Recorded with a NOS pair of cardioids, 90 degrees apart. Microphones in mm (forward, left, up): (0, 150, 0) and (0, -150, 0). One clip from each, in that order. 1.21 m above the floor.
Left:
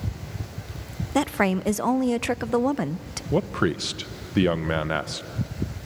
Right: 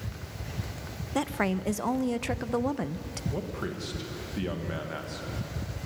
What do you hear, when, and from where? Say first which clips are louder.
1.1 s a woman speaking: left 6 dB; 25° left, 0.6 m
3.3 s a man speaking: left 12 dB; 70° left, 1.1 m